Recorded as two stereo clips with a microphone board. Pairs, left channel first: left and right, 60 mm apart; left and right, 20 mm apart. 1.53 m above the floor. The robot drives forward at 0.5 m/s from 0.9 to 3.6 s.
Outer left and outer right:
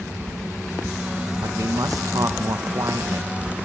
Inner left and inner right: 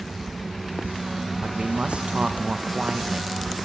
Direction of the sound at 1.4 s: 65° right (ahead or behind).